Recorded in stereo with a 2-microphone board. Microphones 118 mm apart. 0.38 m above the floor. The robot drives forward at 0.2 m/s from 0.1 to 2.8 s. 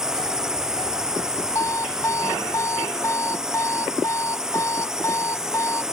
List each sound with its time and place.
0.0 s a drone: 5° right (ahead or behind)
1.6 s an alarm clock: 25° left (ahead or behind)